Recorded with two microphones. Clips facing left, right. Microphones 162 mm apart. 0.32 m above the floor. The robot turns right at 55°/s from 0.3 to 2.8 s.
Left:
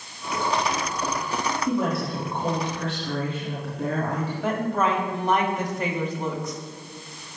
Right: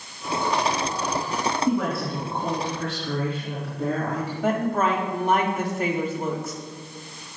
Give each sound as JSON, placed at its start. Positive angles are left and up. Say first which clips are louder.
{"t": 1.7, "sound": "a woman speaking", "louder": "even", "azimuth_deg": -25, "distance_m": 3.5}
{"t": 4.4, "sound": "a woman speaking", "louder": "right 2 dB", "side_deg": -5, "distance_m": 1.9}